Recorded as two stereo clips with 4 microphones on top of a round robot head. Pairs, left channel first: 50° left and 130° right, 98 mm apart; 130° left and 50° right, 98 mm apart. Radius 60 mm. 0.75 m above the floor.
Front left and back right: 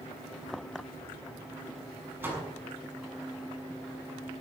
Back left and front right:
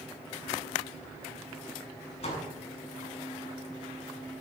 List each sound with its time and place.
2.2 s a door slam: 160° left, 7 m